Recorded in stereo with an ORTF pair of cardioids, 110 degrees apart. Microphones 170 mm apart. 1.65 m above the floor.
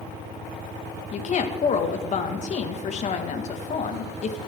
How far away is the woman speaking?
About 2.0 m.